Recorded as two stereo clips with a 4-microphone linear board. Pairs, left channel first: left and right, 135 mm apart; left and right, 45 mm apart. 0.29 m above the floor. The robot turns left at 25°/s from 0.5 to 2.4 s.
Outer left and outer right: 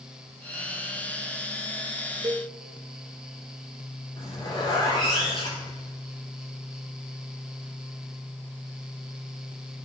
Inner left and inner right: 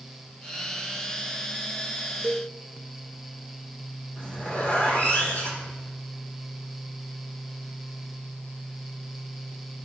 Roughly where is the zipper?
Left.